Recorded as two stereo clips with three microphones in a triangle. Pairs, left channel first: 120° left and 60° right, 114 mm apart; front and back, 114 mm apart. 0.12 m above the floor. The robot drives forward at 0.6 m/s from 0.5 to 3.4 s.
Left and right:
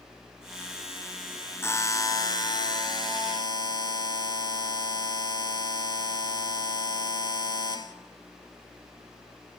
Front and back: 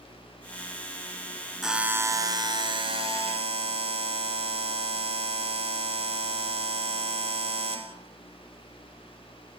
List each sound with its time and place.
1.6 s a buzzer: 95° left, 0.6 m; by 8.0 s 165° left, 1.3 m